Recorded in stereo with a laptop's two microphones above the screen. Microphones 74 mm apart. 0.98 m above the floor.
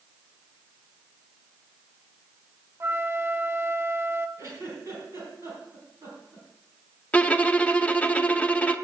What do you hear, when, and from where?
2.8 s a flute: 35° right (ahead or behind), 0.8 m
4.4 s a giggle: 45° right (ahead or behind), 4.5 m
7.1 s a violin: 15° left (ahead or behind), 0.8 m